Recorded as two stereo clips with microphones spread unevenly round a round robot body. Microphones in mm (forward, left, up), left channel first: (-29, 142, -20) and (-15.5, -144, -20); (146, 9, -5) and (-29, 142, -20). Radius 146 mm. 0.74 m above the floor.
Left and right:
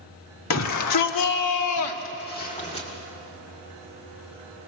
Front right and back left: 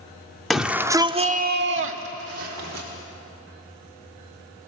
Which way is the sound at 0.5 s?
55° left.